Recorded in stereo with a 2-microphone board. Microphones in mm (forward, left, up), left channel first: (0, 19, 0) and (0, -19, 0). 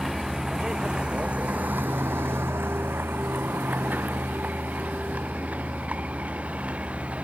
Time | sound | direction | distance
0.0 | a vehicle | 5° right (ahead or behind) | ?